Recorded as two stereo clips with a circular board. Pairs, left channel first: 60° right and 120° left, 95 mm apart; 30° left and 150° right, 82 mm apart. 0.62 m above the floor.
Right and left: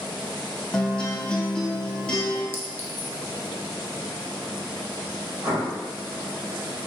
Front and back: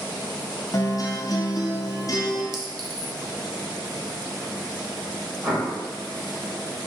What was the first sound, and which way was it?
A guitar, 15° left.